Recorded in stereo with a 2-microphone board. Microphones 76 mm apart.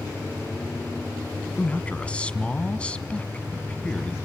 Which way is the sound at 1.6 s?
15° left (ahead or behind).